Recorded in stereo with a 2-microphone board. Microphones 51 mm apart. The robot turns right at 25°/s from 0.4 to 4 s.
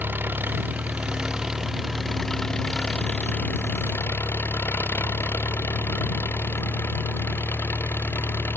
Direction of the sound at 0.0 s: 40° right.